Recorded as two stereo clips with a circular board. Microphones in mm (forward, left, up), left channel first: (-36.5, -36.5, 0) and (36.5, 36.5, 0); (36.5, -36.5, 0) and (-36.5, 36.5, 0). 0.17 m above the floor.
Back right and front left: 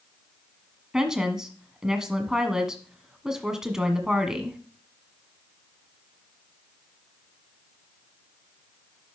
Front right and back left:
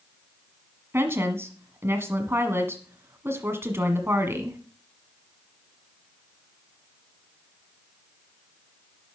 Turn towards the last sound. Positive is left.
turn(degrees=125)